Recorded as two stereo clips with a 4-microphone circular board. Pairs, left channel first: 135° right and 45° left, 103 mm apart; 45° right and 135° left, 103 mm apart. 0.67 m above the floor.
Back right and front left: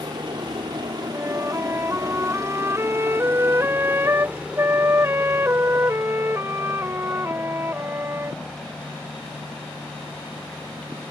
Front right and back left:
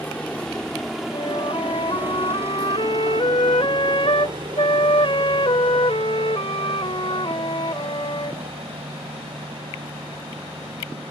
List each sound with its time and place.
0.0 s a helicopter: 30° left; by 11.1 s 145° left
1.1 s a flute: 20° right